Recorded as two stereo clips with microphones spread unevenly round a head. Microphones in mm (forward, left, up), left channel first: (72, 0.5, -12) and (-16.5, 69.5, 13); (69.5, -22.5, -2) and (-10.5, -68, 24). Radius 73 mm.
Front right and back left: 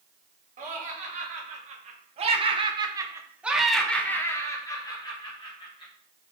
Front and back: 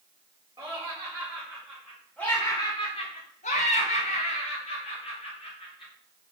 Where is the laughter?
140° left, 1.6 m; by 5.9 s 10° left, 1.7 m.